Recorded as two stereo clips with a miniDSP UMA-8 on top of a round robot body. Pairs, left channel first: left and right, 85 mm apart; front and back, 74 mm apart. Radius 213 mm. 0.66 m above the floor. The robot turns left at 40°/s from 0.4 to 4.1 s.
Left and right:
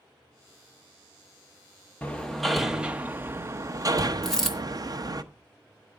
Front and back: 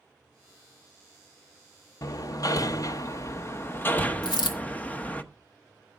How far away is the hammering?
About 1.0 m.